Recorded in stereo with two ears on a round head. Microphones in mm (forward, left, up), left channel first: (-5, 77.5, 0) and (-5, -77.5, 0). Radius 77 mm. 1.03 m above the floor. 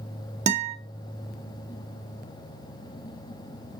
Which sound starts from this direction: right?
A guitar, at 0.5 s.